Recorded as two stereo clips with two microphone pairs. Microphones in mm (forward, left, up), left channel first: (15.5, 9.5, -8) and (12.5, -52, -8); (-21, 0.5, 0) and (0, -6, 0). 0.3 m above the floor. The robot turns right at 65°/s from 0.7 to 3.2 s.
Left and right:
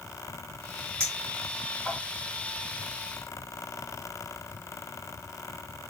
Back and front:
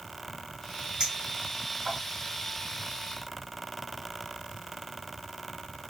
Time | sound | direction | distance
1.0 | a clink | 50° right | 1.8 m